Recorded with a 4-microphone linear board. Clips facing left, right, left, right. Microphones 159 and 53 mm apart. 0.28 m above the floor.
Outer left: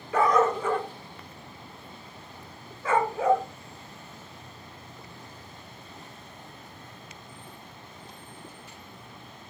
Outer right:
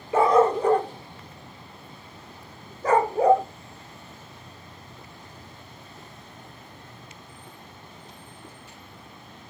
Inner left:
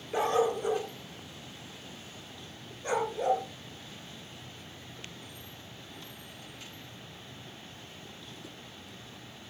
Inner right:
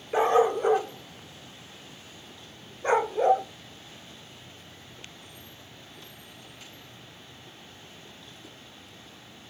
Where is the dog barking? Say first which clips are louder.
Outer right 4 dB, inner right 6 dB; 25° right (ahead or behind), 1.2 m; by 3.5 s 35° right (ahead or behind), 1.7 m.